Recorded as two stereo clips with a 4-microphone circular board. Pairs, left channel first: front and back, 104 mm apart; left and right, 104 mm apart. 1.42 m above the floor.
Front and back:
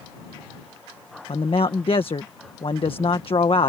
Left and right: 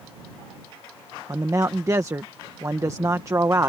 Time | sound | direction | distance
1.3 | a man speaking | 30° right | ?